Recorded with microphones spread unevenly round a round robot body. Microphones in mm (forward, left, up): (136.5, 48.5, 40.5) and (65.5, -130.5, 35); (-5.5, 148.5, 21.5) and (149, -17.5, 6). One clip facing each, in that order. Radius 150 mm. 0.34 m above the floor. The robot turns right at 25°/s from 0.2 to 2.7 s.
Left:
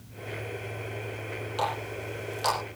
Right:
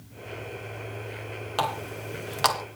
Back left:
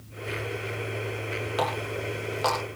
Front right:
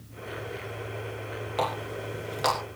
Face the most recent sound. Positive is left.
turn(degrees=-115)